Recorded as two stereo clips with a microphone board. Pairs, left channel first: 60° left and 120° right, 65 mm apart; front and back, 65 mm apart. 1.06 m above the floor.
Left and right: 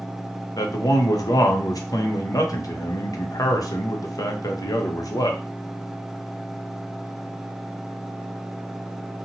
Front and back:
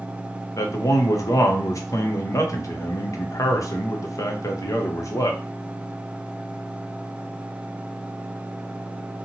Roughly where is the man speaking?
Ahead left.